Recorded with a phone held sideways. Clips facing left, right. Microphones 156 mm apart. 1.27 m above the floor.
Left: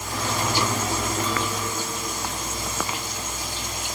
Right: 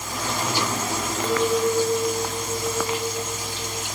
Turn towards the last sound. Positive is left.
turn(degrees=-55)  # may be behind; listen again after turning